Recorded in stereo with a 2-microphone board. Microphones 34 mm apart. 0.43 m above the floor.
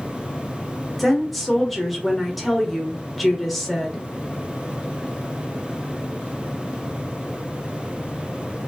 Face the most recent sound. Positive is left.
turn(degrees=0)  # may be behind; listen again after turning